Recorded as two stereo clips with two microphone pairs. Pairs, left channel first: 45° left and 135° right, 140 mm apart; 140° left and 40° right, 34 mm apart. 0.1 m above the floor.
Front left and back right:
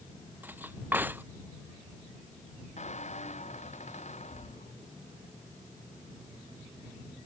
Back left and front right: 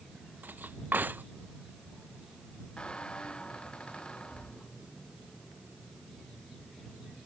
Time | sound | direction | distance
0.4 | cutlery clinking | 60° right | ?
2.8 | a squeak | 80° left | ?